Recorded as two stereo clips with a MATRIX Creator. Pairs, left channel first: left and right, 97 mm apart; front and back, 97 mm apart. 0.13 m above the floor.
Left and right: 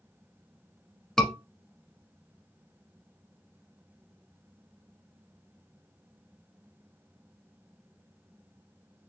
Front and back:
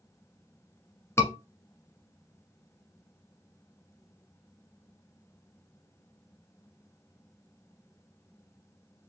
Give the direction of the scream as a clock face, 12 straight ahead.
12 o'clock.